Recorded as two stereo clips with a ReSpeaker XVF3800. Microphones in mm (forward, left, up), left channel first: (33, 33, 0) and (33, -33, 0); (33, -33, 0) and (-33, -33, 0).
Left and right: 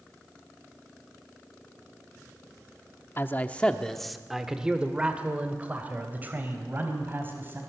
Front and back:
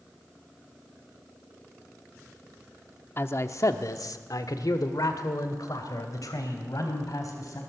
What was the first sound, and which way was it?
A man speaking, 40° left.